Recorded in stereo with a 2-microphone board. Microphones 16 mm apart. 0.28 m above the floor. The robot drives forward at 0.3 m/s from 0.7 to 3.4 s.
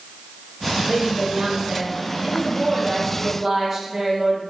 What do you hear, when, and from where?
0.9 s a woman speaking: 20° right (ahead or behind), 1.3 m